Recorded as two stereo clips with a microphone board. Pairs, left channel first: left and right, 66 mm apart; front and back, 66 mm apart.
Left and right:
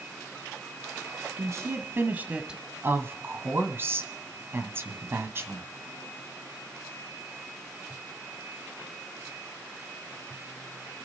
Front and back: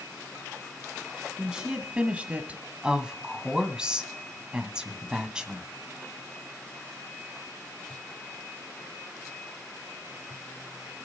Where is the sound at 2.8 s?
110° right, 1.7 m.